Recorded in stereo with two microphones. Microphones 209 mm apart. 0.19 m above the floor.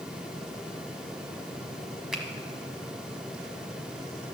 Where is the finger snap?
5° right (ahead or behind), 1.0 m.